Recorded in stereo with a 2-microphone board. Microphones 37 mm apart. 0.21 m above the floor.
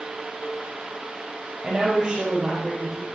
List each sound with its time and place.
1.6 s a woman speaking: 25° right (ahead or behind), 4.5 m; by 3.0 s 15° right (ahead or behind), 5 m